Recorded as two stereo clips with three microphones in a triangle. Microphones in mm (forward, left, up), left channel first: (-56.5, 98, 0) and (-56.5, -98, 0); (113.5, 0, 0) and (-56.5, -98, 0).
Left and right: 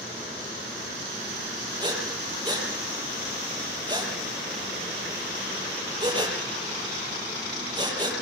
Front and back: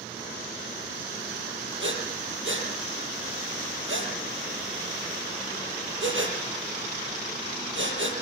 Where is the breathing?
160° right, 7 m.